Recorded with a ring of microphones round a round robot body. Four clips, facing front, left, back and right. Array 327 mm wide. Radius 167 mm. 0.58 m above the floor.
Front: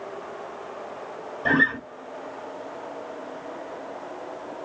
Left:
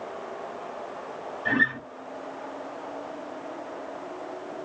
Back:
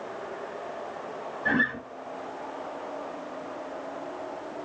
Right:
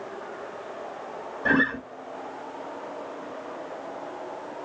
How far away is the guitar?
About 1.4 m.